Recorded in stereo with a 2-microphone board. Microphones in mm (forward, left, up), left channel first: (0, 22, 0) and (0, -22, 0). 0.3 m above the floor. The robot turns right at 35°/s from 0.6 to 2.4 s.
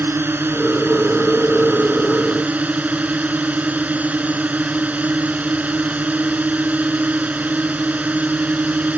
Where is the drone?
105° right; by 9.0 s 40° right.